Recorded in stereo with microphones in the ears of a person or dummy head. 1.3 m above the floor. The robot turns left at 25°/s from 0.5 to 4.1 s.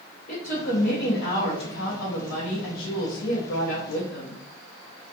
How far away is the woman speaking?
About 0.8 m.